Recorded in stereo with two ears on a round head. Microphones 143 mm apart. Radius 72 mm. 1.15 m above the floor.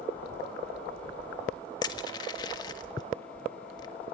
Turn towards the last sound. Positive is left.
turn(degrees=25)  # may be behind; listen again after turning